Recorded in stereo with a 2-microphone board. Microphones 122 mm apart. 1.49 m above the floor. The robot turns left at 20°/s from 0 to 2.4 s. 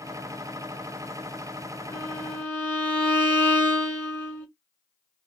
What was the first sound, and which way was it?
A violin, 20° left (ahead or behind).